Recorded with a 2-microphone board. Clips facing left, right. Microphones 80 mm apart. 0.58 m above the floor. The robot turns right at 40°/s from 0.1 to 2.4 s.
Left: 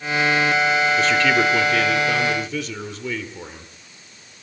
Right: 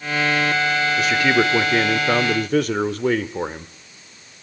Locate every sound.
1.0 s a man speaking: 175° right, 1.4 m; by 3.7 s 115° right, 1.4 m